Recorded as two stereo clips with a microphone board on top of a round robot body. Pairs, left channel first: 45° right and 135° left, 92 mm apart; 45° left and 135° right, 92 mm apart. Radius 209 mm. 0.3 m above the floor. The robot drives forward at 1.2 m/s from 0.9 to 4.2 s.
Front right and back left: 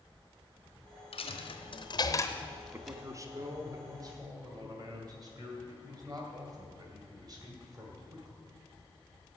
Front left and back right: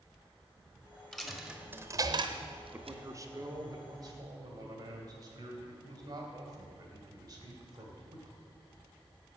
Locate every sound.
1.1 s a dropped coin: 40° right, 1.5 m; by 3.0 s 140° right, 1.5 m
2.7 s a man speaking: straight behind, 1.0 m